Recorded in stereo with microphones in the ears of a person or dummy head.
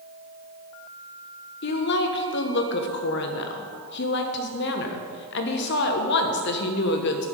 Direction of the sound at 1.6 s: 55° left (ahead or behind).